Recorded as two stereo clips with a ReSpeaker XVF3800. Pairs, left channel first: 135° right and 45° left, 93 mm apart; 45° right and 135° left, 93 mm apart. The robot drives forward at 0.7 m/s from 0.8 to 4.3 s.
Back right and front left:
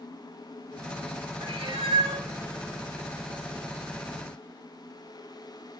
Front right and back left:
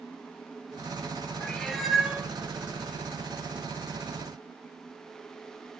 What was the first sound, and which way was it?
A cat meowing, 35° left.